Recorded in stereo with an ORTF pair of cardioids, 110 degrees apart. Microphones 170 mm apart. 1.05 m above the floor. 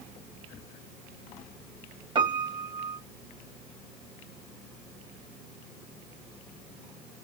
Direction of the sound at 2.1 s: 30° right.